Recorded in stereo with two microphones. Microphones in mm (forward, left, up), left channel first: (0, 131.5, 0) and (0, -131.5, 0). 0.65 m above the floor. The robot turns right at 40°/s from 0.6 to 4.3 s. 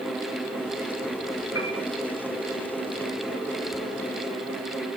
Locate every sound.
1.6 s a piano: 65° left (ahead or behind), 6 m; by 1.8 s 55° left (ahead or behind), 6 m